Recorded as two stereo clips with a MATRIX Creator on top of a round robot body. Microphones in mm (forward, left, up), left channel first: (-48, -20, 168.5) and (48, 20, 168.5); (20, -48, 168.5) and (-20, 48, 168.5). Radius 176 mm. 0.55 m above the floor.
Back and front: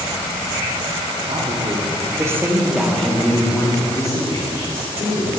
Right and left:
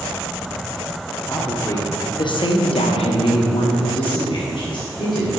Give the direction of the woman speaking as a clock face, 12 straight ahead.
12 o'clock.